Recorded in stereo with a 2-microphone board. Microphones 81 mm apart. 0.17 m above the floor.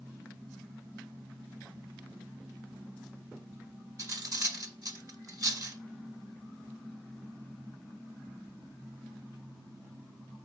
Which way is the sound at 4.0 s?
45° right (ahead or behind).